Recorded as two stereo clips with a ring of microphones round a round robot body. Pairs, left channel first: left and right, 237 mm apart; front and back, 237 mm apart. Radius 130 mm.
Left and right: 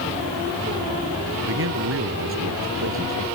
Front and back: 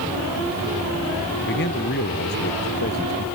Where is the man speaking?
55° right.